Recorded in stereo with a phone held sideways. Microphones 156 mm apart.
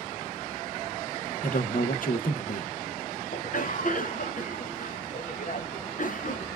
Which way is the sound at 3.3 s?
60° left (ahead or behind).